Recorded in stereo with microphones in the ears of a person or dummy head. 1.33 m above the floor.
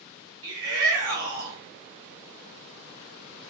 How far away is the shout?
About 2.5 m.